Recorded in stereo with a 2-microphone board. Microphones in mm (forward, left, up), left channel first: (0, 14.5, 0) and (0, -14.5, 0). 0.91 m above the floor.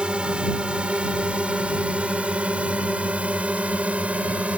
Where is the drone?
35° right (ahead or behind); by 4.6 s 50° right (ahead or behind).